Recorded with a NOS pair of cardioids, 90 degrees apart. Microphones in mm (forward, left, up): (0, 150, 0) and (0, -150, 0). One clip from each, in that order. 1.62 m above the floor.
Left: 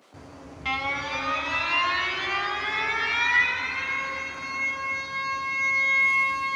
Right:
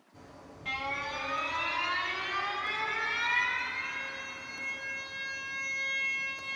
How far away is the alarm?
About 1.0 m.